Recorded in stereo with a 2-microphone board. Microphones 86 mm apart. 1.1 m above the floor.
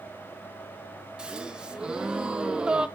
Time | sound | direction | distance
1.2 | a gasp | 10° right (ahead or behind) | 0.8 m